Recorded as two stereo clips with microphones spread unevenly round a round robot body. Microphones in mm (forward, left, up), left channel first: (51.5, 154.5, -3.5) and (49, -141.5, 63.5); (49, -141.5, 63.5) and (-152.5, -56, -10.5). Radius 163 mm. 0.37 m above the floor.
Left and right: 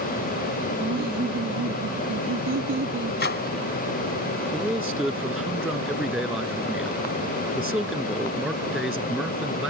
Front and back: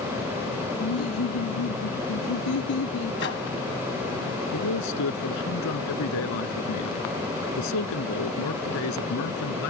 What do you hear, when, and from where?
0.8 s laughter: 30° right; by 3.2 s 40° right
3.2 s a microwave: 35° left
4.5 s a man speaking: 5° right